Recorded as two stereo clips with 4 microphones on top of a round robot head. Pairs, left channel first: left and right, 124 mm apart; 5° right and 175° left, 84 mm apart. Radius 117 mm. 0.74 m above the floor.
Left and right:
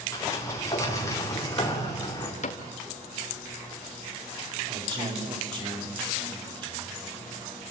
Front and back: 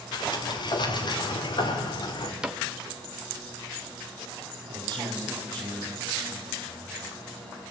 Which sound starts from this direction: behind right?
A man speaking, at 4.7 s.